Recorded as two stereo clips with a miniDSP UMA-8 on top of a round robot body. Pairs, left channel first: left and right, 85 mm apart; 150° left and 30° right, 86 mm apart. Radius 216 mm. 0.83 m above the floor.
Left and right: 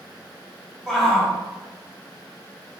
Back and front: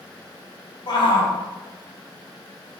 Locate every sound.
0.9 s a shout: straight behind, 3 m